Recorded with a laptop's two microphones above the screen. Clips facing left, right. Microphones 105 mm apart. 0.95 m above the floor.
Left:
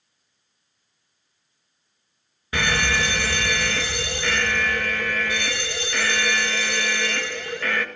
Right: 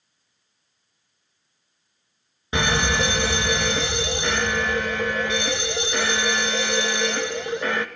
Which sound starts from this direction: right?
A fire alarm, at 2.5 s.